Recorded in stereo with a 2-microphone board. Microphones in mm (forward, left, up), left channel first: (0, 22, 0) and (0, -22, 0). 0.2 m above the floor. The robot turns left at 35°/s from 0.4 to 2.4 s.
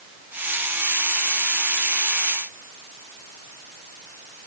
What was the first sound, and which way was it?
Only background noise.